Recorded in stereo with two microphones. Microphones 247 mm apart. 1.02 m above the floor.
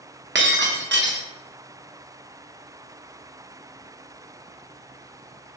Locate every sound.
0.3 s breaking glass: 45° right (ahead or behind), 0.6 m